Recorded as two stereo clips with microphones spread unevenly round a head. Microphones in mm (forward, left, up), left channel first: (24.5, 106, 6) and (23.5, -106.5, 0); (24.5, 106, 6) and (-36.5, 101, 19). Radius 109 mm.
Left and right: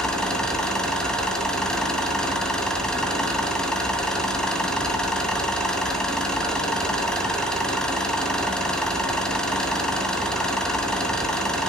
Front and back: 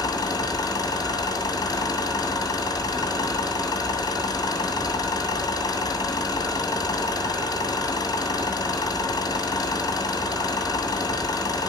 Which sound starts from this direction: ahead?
An engine running, at 0.0 s.